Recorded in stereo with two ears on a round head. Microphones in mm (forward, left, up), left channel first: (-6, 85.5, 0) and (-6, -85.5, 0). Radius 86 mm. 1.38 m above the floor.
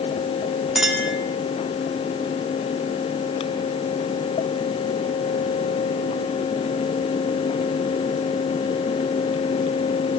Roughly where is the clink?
Centre.